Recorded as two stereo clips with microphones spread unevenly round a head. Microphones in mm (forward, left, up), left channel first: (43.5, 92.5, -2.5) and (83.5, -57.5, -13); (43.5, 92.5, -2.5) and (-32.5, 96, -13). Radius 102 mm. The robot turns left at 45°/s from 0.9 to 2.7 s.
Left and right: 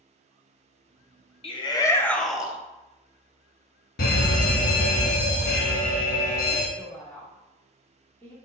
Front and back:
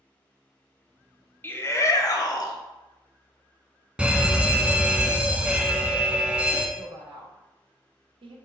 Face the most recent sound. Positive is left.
turn(degrees=180)